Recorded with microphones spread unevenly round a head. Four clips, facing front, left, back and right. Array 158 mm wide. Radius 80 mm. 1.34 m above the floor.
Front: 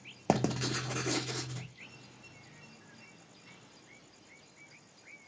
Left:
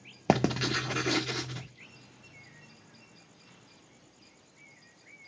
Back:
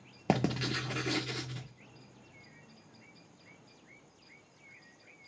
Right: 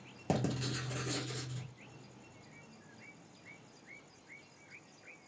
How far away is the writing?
About 0.6 m.